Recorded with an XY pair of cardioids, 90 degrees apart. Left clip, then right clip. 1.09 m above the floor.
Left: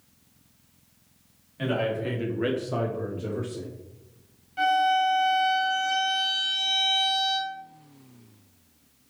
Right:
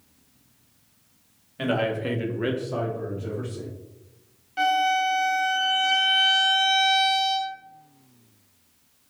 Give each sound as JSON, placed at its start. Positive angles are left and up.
{"t": 1.6, "sound": "a man speaking", "azimuth_deg": -55, "distance_m": 1.0}
{"t": 4.6, "sound": "a violin", "azimuth_deg": -50, "distance_m": 0.9}